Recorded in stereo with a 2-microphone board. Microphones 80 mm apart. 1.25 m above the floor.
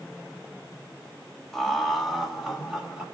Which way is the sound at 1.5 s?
5° left (ahead or behind).